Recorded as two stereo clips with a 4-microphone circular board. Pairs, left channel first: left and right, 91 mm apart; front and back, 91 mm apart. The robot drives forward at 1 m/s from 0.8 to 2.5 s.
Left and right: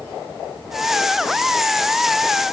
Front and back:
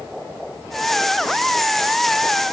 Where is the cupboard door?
I don't hear a cupboard door.